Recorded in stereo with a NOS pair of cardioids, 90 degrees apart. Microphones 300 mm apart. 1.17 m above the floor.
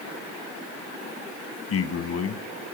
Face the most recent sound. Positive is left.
turn(degrees=55)